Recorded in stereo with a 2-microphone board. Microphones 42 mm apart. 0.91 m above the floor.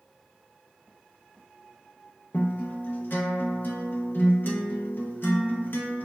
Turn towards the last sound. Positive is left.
turn(degrees=50)  # may be behind; listen again after turning